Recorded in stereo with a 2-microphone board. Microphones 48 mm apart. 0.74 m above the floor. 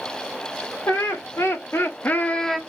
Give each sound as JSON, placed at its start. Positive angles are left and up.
{"t": 0.9, "sound": "laughter", "side_deg": 75, "distance_m": 2.5}